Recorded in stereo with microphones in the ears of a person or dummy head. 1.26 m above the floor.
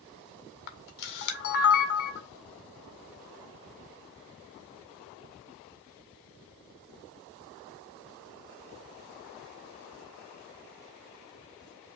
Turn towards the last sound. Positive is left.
turn(degrees=55)  # may be behind; listen again after turning